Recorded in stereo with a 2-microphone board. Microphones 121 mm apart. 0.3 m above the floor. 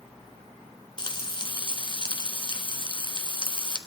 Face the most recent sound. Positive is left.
turn(degrees=40)  # may be behind; listen again after turning